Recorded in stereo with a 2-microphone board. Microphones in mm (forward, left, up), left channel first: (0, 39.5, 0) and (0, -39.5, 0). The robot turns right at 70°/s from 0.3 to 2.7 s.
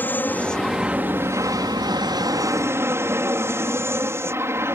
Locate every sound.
0.0 s an aircraft: 155° left; by 4.8 s 40° right